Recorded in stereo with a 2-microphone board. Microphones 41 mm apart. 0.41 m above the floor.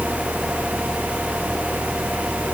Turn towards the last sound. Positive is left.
No sound to turn to.